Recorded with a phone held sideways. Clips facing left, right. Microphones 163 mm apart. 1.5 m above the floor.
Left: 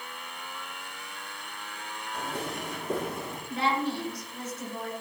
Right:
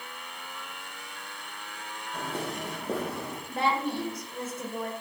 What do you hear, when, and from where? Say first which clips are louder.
2.1 s footsteps: right 1 dB; 65° right (ahead or behind), 3.5 m; by 3.4 s 70° right (ahead or behind), 4 m
3.5 s a woman speaking: even; 50° right (ahead or behind), 1.8 m